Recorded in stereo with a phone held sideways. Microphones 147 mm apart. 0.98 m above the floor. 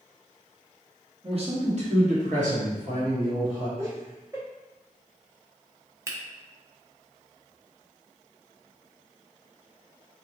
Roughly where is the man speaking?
Right.